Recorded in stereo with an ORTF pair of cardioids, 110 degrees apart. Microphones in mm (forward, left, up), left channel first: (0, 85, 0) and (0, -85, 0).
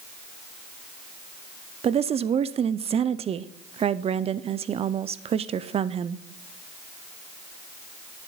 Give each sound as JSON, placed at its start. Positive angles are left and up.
{"t": 1.8, "sound": "a woman speaking", "azimuth_deg": -35, "distance_m": 0.6}